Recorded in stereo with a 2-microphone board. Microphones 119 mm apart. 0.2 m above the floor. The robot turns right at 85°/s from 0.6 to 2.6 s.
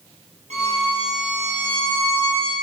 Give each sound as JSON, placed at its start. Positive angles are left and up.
{"t": 0.5, "sound": "a violin", "azimuth_deg": -75, "distance_m": 5.0}